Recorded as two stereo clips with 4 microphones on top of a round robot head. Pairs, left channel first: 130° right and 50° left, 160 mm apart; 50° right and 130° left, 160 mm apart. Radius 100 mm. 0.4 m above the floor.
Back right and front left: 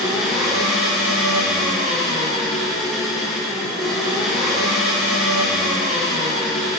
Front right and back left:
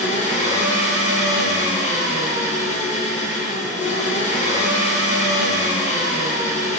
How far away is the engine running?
About 1.0 m.